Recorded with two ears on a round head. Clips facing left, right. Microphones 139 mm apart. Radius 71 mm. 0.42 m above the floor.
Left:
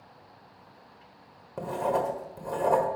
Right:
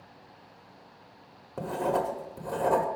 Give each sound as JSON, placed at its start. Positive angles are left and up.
{"t": 1.6, "sound": "writing", "side_deg": 0, "distance_m": 1.4}